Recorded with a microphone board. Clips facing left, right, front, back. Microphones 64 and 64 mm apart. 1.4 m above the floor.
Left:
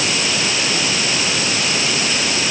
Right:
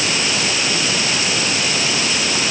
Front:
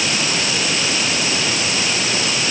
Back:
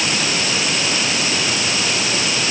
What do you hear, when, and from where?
Only background noise.